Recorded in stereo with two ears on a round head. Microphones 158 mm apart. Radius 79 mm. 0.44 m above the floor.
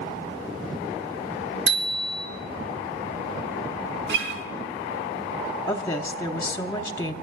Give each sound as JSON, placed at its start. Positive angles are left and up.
{"t": 1.7, "sound": "a bicycle bell", "side_deg": -85, "distance_m": 4.0}
{"t": 4.1, "sound": "a guitar", "side_deg": -75, "distance_m": 3.5}
{"t": 5.7, "sound": "a woman speaking", "side_deg": 15, "distance_m": 0.9}